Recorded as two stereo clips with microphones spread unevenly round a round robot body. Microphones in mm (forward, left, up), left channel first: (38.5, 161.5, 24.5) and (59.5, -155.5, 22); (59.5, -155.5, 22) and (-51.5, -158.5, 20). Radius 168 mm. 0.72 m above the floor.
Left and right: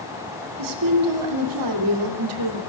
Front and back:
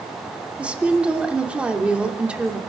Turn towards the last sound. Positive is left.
turn(degrees=-100)